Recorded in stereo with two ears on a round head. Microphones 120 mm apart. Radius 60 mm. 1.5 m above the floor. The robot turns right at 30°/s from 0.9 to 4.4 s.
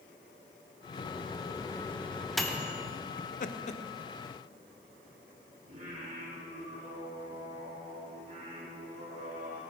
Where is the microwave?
40° left (ahead or behind), 1.0 m; by 2.9 s 15° right (ahead or behind), 1.0 m.